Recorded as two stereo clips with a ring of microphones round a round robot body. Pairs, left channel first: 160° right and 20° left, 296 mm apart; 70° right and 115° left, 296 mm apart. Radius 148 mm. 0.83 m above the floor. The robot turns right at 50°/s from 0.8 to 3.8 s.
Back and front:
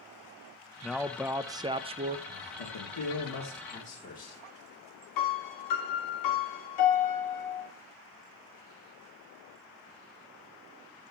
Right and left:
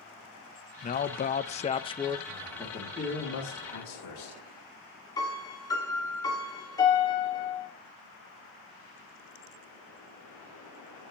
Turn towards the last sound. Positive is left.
turn(degrees=-145)